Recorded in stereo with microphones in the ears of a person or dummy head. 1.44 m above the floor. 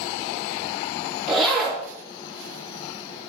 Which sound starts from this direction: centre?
A zipper, at 1.3 s.